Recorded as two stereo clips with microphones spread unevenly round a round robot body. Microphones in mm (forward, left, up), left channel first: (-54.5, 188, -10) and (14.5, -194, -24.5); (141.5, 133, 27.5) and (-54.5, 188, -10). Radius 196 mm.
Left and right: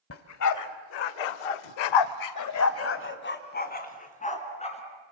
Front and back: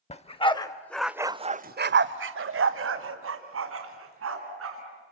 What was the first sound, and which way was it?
A dog barking, 45° left.